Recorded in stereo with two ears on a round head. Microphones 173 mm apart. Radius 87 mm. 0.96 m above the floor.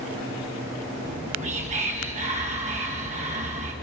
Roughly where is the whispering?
Right.